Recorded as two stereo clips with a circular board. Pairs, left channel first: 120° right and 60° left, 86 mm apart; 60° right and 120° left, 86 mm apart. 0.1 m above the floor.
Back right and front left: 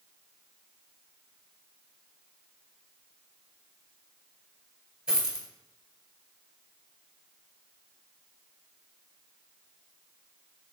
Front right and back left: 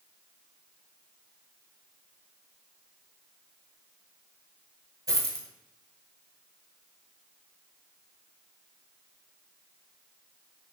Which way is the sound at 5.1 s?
135° left.